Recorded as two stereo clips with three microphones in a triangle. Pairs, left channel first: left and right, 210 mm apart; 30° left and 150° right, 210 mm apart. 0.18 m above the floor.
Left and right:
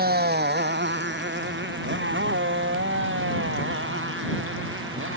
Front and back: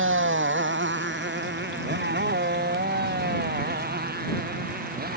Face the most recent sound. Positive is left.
turn(degrees=-105)